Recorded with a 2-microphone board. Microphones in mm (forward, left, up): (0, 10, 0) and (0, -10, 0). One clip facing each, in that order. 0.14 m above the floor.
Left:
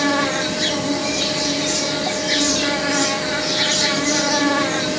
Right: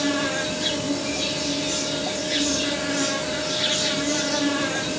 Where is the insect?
60° left (ahead or behind), 8 m.